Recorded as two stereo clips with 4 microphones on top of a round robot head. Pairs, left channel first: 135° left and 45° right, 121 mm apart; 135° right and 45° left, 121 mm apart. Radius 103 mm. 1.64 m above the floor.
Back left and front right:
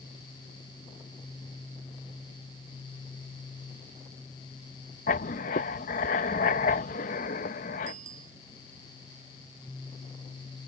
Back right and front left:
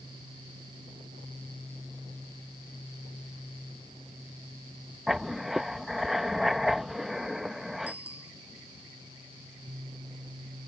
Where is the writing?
130° left.